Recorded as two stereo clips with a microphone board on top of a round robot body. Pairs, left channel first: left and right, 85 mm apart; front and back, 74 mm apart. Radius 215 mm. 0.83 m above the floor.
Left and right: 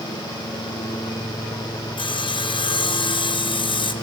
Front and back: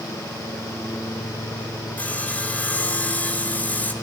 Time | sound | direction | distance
2.0 | sawing | 70° left | 2 m